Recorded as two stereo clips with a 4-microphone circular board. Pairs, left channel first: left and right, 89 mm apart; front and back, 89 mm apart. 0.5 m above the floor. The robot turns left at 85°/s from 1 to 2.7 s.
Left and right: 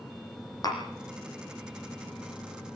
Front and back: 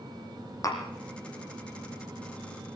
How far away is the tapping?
About 5 m.